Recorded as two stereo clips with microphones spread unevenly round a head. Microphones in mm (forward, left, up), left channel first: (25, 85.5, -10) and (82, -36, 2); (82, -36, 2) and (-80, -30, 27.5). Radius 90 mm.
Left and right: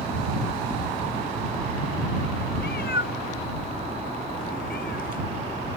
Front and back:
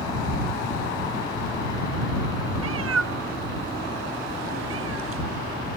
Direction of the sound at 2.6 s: 160° left.